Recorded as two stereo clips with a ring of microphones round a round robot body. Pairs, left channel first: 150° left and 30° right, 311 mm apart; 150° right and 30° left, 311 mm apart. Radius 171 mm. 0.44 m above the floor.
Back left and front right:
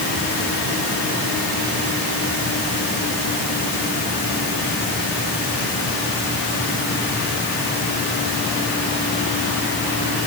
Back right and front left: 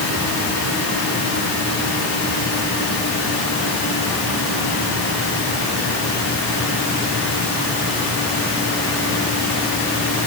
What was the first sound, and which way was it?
Only background noise.